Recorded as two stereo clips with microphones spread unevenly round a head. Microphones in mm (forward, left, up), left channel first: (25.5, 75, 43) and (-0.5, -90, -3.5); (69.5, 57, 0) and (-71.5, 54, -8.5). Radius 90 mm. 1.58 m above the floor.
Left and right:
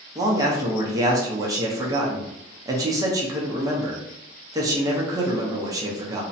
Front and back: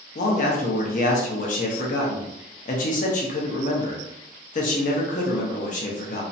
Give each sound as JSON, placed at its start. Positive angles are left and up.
{"t": 0.1, "sound": "a man speaking", "azimuth_deg": -20, "distance_m": 0.6}